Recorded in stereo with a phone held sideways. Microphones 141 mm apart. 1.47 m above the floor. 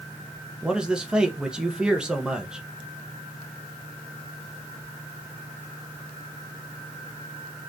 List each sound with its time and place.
0.6 s a man speaking: 5° right (ahead or behind), 1.5 m